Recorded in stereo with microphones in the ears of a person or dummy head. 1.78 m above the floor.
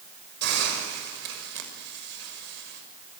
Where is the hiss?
70° right (ahead or behind), 6.5 m.